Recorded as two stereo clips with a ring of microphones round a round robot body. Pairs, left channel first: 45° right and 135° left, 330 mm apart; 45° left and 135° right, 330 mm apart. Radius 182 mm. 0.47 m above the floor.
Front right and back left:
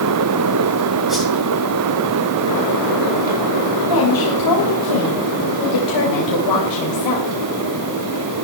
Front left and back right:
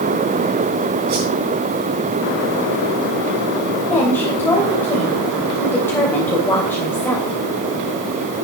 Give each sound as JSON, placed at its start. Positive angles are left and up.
{"t": 1.1, "sound": "a whoosh", "azimuth_deg": -135, "distance_m": 8.0}
{"t": 3.9, "sound": "a woman speaking", "azimuth_deg": -40, "distance_m": 3.0}